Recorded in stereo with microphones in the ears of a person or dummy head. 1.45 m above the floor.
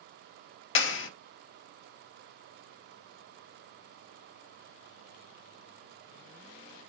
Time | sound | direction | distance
0.8 | a clap | 75° left (ahead or behind) | 0.9 m